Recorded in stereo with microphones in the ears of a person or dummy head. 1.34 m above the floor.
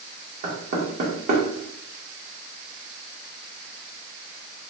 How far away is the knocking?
About 1.2 m.